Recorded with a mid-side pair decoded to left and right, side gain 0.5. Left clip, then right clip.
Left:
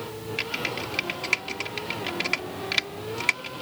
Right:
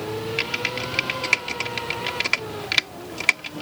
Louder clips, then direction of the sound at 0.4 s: Right 2 dB; 30° right.